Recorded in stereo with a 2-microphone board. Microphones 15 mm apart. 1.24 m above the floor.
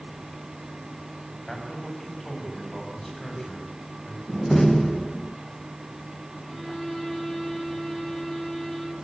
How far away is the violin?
About 4 m.